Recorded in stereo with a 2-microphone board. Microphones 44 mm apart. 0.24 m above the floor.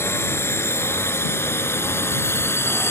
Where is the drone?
70° left (ahead or behind); by 2.9 s 65° left (ahead or behind).